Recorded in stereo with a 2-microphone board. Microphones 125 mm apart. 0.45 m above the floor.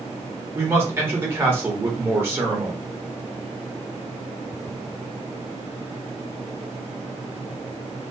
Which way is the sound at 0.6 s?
20° right (ahead or behind).